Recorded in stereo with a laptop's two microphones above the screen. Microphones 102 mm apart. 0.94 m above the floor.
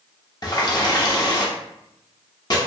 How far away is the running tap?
About 0.7 m.